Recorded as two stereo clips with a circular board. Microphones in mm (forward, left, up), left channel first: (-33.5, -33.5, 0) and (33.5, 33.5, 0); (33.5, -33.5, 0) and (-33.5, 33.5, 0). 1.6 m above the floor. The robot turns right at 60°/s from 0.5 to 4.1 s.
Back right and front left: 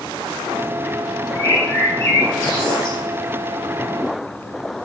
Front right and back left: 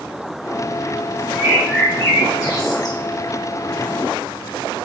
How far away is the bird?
About 1.0 m.